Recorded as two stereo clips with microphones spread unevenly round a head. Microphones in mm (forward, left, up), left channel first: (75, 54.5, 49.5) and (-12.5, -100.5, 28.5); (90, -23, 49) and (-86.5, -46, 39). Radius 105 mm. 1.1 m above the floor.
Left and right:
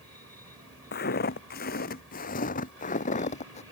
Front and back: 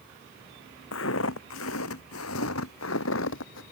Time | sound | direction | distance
0.9 | footsteps | 35° left | ?